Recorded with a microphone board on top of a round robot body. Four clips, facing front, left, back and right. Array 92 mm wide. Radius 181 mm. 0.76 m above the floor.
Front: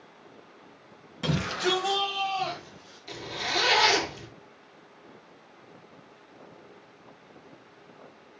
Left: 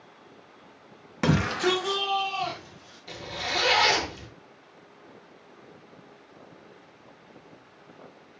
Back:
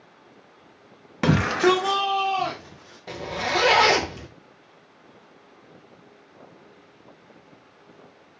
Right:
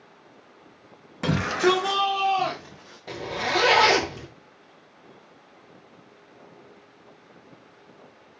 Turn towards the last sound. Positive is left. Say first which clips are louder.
# right 6 dB, back 7 dB
turn(degrees=-150)